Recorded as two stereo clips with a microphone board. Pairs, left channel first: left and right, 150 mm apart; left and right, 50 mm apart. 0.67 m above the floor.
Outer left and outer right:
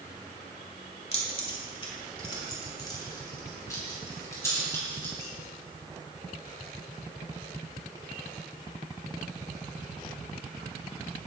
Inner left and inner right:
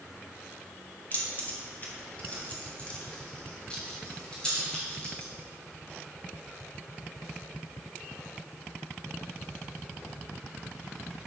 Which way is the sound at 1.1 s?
40° left (ahead or behind).